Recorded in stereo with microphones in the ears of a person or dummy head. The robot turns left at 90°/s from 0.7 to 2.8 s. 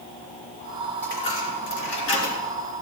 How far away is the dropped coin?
About 3.5 m.